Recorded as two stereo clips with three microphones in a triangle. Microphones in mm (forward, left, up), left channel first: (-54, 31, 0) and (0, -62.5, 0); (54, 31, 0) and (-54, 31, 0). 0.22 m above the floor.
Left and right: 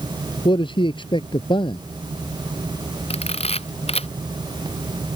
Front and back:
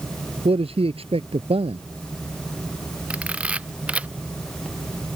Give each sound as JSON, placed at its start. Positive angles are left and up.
{"t": 0.5, "sound": "a man speaking", "azimuth_deg": 160}
{"t": 3.1, "sound": "a camera shutter", "azimuth_deg": 100}